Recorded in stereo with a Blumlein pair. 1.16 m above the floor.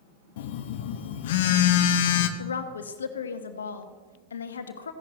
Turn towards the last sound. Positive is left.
turn(degrees=70)